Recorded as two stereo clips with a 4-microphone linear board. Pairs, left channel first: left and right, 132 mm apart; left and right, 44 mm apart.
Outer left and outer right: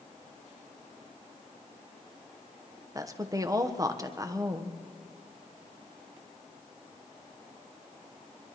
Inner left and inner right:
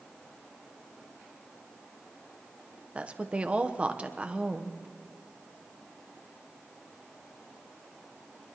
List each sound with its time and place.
3.0 s a woman speaking: 25° right (ahead or behind), 1.0 m